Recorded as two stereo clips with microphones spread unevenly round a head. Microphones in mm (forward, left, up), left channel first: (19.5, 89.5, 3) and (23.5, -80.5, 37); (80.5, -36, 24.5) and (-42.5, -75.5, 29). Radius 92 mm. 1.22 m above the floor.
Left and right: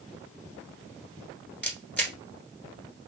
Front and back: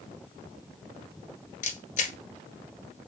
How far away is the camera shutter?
About 1.8 m.